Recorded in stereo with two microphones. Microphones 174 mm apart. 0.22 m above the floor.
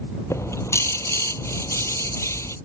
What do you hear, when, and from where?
0.3 s a bird: 15° left (ahead or behind)